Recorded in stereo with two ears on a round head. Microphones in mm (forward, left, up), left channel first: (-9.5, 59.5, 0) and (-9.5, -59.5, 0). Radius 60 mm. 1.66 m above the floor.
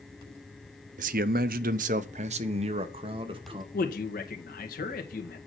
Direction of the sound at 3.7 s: 80° left.